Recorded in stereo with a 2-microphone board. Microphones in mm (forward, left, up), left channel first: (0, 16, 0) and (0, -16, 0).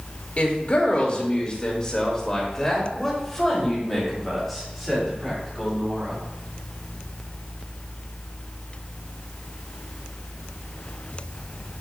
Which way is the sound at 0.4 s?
50° left (ahead or behind).